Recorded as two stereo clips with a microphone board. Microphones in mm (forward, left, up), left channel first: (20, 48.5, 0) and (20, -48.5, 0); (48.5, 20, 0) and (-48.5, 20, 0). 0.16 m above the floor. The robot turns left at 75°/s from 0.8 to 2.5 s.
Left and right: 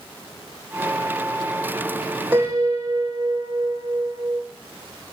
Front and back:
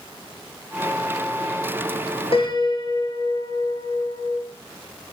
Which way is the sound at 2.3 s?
20° right.